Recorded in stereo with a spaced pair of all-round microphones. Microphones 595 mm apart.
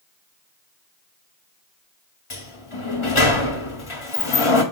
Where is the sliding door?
50° left (ahead or behind), 1.4 m.